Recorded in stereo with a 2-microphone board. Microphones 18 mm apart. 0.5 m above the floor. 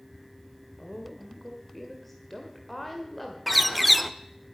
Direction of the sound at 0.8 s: 10° left (ahead or behind).